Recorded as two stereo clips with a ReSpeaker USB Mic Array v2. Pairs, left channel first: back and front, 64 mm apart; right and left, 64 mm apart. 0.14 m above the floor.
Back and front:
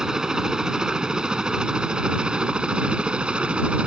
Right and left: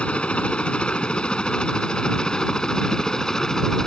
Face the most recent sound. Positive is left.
turn(degrees=-25)